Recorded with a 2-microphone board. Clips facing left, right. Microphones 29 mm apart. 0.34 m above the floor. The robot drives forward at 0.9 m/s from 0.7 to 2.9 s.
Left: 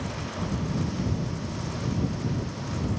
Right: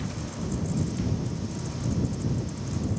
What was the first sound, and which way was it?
Only background noise.